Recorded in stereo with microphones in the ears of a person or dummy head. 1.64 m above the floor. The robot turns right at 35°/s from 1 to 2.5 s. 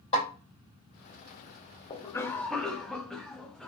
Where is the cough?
20° left (ahead or behind), 0.5 m; by 3.7 s centre (ahead or behind), 0.5 m.